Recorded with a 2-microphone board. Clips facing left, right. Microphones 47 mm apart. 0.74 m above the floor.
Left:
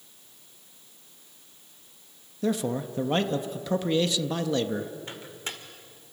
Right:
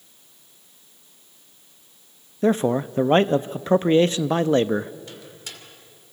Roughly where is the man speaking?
Right.